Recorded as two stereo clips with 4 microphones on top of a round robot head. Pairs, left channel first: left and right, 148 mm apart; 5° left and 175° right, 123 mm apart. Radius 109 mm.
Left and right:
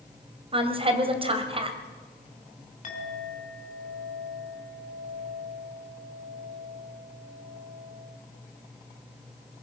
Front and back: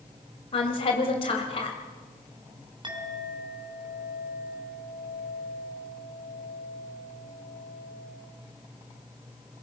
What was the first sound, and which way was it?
A woman speaking, 40° right.